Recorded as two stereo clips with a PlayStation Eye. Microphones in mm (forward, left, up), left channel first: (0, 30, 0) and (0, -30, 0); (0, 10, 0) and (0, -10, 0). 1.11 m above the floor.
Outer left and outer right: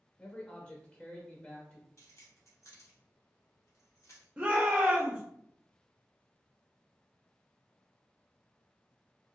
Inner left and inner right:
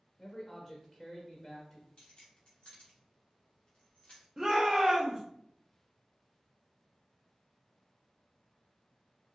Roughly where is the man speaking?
Centre.